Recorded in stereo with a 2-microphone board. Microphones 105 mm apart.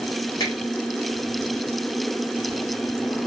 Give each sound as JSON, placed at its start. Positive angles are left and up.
{"t": 0.4, "sound": "a finger snap", "side_deg": 40, "distance_m": 1.8}